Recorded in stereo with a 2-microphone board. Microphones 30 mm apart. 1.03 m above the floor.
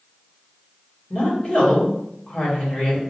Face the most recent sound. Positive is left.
turn(degrees=35)  # may be behind; listen again after turning